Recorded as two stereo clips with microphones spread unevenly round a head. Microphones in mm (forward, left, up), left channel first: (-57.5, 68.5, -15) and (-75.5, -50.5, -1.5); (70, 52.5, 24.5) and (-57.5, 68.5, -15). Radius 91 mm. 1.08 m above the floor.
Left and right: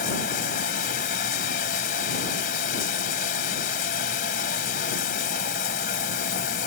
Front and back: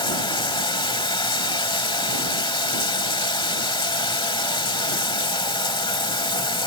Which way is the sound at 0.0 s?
40° left.